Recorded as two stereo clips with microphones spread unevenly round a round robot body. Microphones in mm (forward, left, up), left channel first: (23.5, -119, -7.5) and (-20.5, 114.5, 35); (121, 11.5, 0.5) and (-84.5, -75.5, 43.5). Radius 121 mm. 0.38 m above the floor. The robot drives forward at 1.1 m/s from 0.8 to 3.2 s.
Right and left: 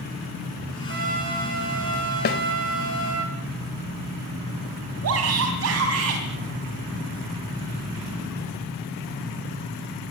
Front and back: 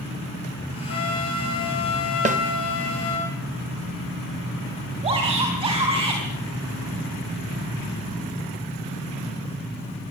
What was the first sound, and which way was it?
A trumpet, 55° left.